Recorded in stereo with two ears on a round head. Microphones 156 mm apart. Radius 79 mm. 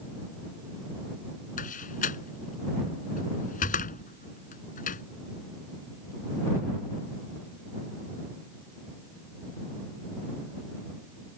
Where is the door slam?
50° left (ahead or behind).